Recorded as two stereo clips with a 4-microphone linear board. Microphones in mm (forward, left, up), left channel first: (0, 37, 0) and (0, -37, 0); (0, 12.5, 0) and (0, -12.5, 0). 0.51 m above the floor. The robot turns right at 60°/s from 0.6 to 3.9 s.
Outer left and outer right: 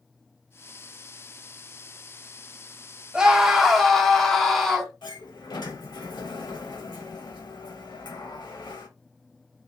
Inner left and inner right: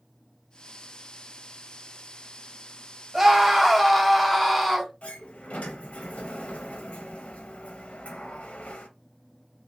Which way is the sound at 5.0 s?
80° left.